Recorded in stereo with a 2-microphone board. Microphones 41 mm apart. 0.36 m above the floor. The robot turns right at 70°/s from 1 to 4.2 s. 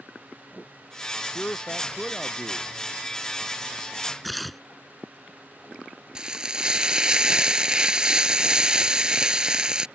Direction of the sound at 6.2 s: 20° right (ahead or behind).